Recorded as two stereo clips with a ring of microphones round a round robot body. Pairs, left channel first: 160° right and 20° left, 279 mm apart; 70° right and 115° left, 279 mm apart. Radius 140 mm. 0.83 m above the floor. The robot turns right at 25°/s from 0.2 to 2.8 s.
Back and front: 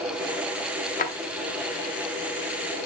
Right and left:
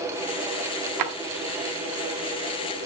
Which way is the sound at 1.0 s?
140° left.